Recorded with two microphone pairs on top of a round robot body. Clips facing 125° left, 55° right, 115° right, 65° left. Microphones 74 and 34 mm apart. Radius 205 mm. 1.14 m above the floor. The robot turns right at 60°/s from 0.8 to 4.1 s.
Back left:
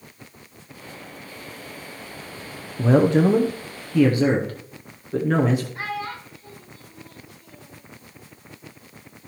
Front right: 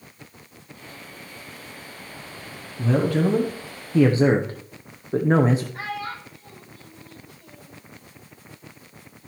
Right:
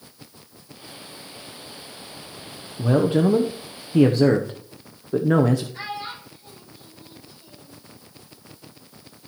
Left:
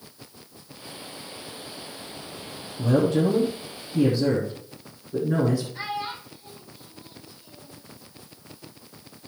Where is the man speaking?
175° left, 0.9 m; by 5.6 s 110° right, 0.9 m.